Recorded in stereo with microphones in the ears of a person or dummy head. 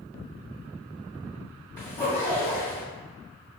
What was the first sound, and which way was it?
A zipper, 15° left (ahead or behind).